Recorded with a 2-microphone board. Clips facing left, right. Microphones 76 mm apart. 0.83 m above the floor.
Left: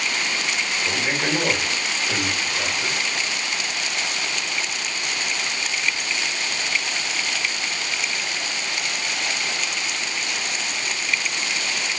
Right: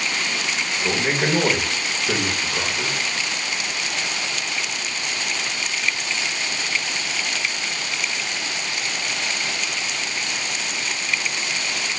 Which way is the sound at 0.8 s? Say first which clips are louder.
Right 4 dB; 55° right (ahead or behind).